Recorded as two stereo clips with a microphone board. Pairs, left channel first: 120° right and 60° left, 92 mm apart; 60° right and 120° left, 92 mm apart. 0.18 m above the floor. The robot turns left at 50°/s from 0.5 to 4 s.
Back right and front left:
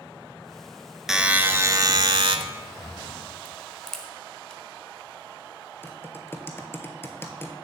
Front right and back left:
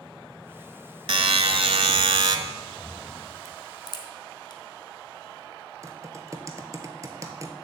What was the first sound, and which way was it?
A buzzer, 145° left.